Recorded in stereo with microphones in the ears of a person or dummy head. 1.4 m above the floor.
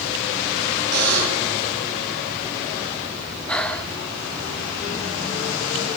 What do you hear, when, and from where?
0.9 s a buzzer: 60° right (ahead or behind), 10 m
3.5 s breathing: 5° left (ahead or behind), 1.5 m